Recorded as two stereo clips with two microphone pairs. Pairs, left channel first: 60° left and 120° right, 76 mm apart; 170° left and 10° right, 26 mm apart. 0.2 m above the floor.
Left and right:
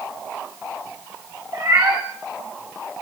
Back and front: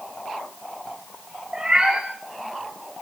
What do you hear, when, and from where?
1.5 s a cat meowing: 75° right, 4.5 m